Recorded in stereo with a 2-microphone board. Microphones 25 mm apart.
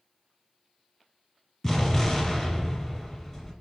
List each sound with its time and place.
1.6 s an explosion: 15° left (ahead or behind), 1.2 m